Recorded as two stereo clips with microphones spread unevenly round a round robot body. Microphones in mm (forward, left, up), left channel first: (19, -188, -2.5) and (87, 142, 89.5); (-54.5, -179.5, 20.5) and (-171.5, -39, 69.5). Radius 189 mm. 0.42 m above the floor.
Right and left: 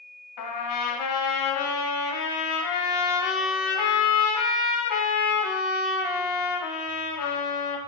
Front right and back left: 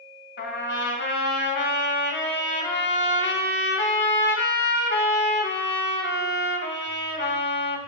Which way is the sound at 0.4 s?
80° right.